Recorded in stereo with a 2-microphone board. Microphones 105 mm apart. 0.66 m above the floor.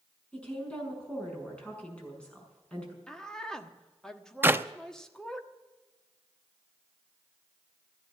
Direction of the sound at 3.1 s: 5° left (ahead or behind).